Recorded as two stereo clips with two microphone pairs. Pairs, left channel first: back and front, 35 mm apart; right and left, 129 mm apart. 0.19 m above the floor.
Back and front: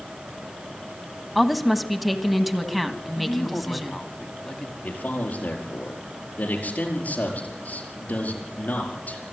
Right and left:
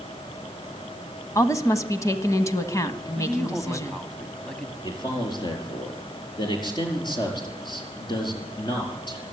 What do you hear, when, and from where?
1.4 s a woman speaking: 90° right, 1.4 m
3.2 s a man speaking: 165° right, 1.4 m
4.8 s a man speaking: 140° right, 5 m